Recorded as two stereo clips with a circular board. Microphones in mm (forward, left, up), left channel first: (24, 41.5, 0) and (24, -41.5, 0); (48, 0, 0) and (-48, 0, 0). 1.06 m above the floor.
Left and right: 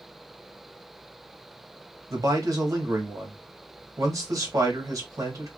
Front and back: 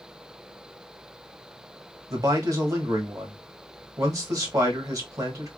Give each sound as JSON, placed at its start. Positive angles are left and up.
{"t": 2.1, "sound": "a man speaking", "azimuth_deg": -135, "distance_m": 1.5}